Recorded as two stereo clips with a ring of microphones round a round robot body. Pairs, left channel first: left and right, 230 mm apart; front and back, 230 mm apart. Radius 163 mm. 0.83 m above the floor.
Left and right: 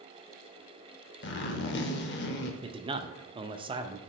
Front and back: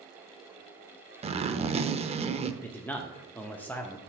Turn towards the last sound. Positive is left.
turn(degrees=-70)